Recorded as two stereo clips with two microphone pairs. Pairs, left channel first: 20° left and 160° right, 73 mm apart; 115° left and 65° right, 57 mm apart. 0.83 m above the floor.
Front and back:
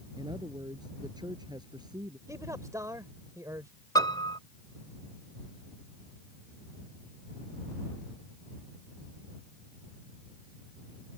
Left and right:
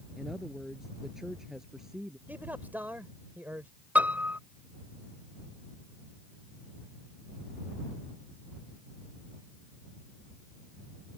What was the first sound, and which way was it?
A woman speaking, 150° right.